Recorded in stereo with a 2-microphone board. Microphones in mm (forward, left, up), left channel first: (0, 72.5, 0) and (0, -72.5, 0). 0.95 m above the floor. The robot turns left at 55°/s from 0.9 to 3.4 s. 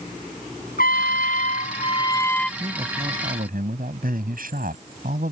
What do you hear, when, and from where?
0.8 s a trumpet: 90° left; by 2.5 s 5° left
2.6 s a man speaking: 35° right; by 5.3 s 75° right